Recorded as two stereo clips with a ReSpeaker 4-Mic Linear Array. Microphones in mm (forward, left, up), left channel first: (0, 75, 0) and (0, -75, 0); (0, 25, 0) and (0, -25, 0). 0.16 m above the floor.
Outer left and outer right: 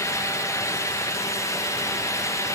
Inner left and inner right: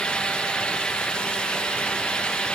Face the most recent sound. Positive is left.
No sound to turn to.